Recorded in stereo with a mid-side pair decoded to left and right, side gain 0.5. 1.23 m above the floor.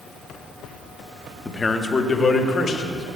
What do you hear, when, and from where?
1.4 s a man speaking: 20° left, 0.9 m; by 3.1 s 45° left, 1.7 m